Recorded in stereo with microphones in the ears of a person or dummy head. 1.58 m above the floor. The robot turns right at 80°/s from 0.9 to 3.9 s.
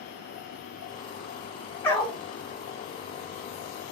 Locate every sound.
1.8 s a dog barking: 15° left (ahead or behind), 1.9 m; by 2.2 s 15° right (ahead or behind), 1.9 m